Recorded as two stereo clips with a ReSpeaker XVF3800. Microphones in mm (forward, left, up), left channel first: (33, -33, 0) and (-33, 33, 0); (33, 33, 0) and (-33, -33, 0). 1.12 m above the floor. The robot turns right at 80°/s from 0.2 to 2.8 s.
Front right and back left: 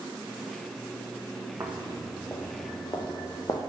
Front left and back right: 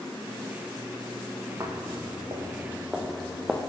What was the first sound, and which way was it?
Footsteps, 175° right.